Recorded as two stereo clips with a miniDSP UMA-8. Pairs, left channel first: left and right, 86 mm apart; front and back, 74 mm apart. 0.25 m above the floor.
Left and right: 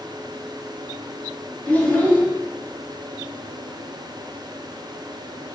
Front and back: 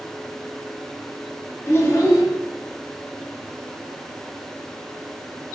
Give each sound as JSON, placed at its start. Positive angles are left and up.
{"t": 1.7, "sound": "a child speaking", "azimuth_deg": 25, "distance_m": 0.7}